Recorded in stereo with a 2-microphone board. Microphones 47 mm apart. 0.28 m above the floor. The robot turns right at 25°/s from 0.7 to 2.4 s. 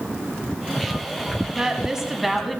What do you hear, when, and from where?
1.5 s a woman speaking: 20° right (ahead or behind), 2.0 m; by 2.6 s centre (ahead or behind), 2.0 m